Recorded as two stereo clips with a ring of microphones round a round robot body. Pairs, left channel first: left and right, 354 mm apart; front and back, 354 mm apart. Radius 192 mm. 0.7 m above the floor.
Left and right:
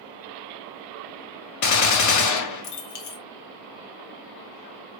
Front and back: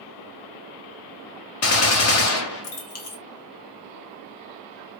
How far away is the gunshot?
About 0.6 m.